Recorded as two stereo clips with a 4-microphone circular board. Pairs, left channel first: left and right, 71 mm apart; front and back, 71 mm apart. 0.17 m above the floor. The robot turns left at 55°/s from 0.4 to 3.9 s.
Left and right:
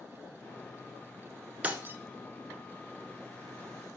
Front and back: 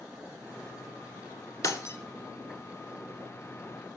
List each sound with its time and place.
1.6 s breaking glass: 25° right, 0.7 m; by 2.0 s 45° right, 0.7 m